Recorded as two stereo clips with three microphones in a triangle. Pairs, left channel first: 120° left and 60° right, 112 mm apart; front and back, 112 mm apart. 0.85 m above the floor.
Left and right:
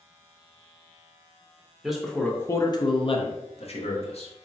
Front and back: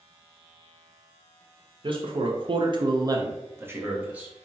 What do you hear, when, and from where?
1.8 s a man speaking: 145° right, 0.6 m; by 4.3 s 105° left, 1.1 m